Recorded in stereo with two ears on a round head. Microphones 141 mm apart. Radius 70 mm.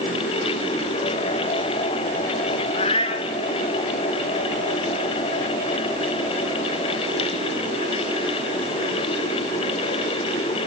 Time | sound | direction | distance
2.7 | a cat meowing | 35° left (ahead or behind) | 2.5 m